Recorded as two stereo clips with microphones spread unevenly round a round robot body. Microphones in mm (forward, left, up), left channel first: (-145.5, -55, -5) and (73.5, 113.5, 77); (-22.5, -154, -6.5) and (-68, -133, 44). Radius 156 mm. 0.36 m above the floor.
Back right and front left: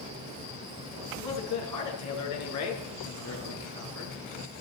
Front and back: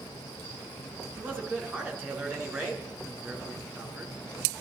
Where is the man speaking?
140° right, 4 m.